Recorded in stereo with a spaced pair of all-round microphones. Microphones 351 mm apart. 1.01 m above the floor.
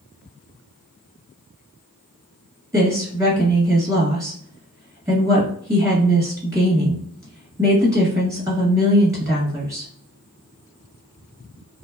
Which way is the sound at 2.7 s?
10° right (ahead or behind).